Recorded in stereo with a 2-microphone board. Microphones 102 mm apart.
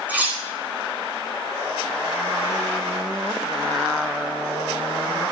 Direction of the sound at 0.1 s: 15° right (ahead or behind).